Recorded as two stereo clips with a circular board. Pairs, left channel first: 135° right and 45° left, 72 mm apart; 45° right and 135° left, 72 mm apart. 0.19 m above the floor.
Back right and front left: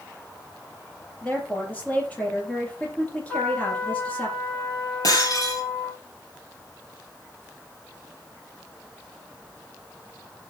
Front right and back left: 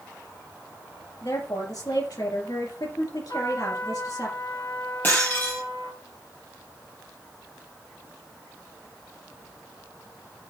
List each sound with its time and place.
1.2 s a woman speaking: 65° right, 5 m
3.3 s a trumpet: 55° right, 8 m
5.0 s breaking glass: 100° right, 4 m